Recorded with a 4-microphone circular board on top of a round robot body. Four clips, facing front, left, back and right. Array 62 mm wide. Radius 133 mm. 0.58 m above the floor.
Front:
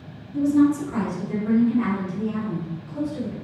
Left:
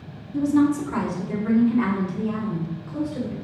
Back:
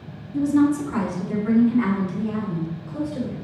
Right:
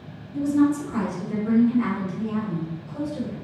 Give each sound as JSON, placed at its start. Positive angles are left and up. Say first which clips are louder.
{"t": 0.3, "sound": "a woman speaking", "louder": "left 1 dB, even", "azimuth_deg": 100, "distance_m": 2.5}